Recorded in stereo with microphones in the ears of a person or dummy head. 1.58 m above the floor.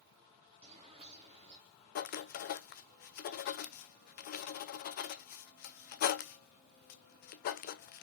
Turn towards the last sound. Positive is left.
turn(degrees=50)  # may be behind; listen again after turning